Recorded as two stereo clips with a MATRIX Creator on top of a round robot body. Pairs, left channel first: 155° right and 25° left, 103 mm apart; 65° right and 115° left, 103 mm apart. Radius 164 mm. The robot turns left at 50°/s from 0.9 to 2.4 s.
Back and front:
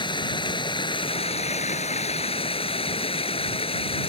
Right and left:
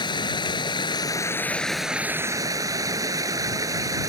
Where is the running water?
115° right; by 4.1 s 170° left.